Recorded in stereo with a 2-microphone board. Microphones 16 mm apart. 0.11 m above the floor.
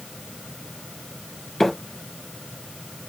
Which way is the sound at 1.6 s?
25° left (ahead or behind).